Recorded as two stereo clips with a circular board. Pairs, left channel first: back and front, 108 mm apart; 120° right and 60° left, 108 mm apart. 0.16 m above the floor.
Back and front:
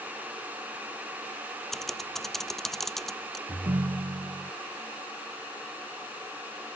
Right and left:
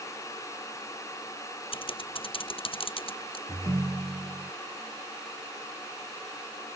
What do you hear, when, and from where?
1.7 s typing on a keyboard: 95° right
3.5 s a ringtone: 5° left